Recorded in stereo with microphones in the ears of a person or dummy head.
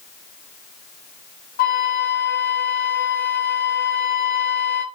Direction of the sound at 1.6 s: 35° left (ahead or behind).